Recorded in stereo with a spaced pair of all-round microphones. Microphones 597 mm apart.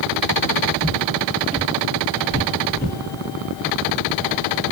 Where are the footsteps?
25° right (ahead or behind), 1.7 m; by 3.0 s 20° left (ahead or behind), 1.6 m.